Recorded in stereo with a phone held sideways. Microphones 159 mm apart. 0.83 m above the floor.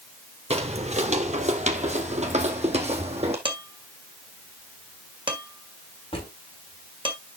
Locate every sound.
0.5 s footsteps: 40° right (ahead or behind), 1.0 m
3.5 s dishes clattering: 30° right (ahead or behind), 1.9 m
6.1 s a drawer: 35° left (ahead or behind), 4 m